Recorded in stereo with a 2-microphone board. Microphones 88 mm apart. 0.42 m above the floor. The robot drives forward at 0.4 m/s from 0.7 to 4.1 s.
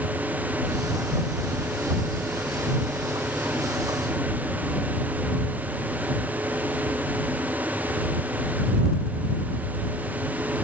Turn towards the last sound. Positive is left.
No sound to turn to.